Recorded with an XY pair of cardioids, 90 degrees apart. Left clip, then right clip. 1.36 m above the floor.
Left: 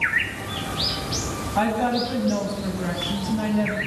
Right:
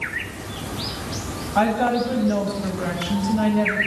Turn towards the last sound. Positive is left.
turn(degrees=-60)